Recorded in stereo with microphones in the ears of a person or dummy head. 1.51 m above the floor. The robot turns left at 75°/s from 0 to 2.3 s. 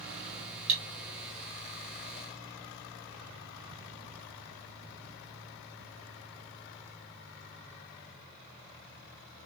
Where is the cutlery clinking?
35° right (ahead or behind), 1.3 m; by 0.8 s 40° right (ahead or behind), 1.3 m.